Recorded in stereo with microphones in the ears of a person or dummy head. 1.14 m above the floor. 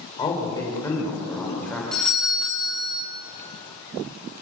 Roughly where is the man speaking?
Left.